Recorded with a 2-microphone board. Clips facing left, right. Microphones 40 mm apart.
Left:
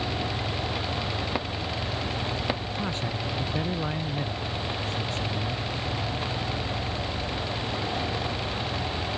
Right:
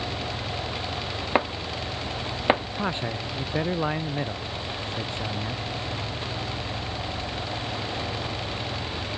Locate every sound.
1.4 s chopping: 35° right (ahead or behind)
2.8 s a man speaking: 25° right (ahead or behind)